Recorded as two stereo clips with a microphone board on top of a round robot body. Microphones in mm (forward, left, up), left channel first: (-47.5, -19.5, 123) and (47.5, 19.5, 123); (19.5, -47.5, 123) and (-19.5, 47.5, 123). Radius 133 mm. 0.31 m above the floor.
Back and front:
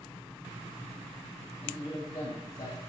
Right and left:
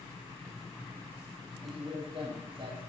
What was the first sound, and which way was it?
A man speaking, 155° left.